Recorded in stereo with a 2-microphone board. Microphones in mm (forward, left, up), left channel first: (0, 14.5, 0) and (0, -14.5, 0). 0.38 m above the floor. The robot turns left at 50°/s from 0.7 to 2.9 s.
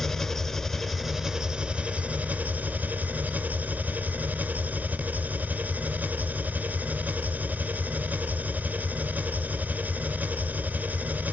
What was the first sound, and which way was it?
An engine running, 5° left.